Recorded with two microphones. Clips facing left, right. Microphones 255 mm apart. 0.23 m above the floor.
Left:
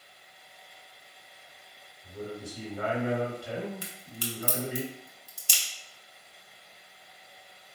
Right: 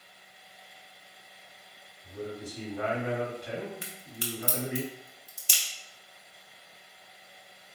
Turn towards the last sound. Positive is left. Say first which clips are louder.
# left 1 dB
turn(degrees=40)  # may be behind; listen again after turning